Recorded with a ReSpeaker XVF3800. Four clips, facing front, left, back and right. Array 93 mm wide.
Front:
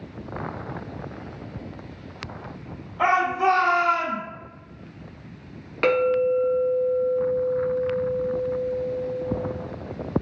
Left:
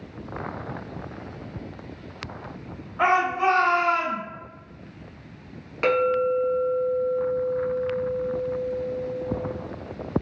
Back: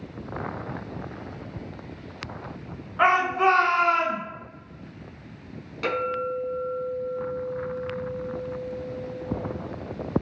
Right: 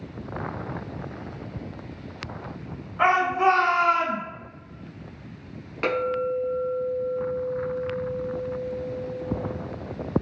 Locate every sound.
3.0 s a shout: straight behind, 2.0 m; by 4.2 s 160° right, 1.5 m
5.8 s a clink: 10° left, 1.1 m